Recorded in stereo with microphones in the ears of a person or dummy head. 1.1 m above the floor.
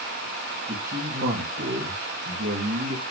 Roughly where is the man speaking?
Right.